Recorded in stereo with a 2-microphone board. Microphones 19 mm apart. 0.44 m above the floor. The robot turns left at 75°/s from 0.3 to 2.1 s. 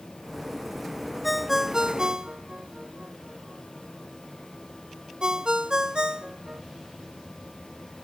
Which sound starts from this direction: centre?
A ringtone, at 1.2 s.